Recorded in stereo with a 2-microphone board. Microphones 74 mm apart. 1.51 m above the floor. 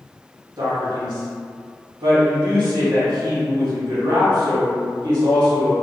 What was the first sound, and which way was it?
A man speaking, 75° right (ahead or behind).